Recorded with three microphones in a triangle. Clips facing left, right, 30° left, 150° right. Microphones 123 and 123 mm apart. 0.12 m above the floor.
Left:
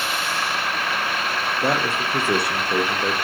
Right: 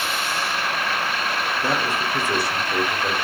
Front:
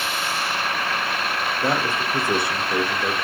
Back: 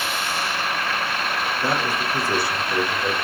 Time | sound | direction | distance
1.6 | a man speaking | 95° left | 3 m